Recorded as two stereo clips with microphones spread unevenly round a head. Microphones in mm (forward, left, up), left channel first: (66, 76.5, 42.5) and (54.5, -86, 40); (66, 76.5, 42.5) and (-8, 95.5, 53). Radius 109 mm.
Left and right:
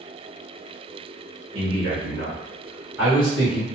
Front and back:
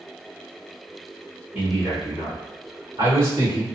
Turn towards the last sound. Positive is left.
turn(degrees=170)